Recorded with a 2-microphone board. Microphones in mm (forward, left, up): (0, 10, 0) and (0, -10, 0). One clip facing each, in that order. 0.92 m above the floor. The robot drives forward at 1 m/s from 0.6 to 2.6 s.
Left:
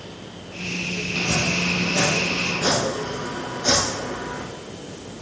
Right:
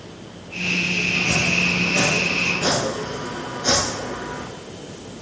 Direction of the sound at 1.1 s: 35° right (ahead or behind).